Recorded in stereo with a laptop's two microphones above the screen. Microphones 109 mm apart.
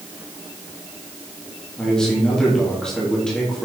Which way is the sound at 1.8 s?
5° left (ahead or behind).